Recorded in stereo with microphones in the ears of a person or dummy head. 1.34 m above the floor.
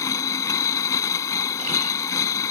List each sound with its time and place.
0.0 s a machine running: 15° left (ahead or behind)